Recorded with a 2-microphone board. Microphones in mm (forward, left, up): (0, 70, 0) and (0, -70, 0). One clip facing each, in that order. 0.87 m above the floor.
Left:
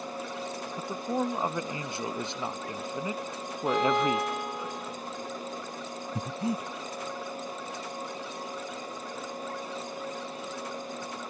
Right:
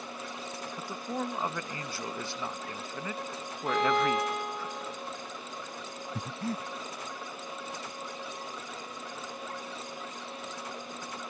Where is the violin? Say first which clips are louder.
Left 1 dB; centre (ahead or behind).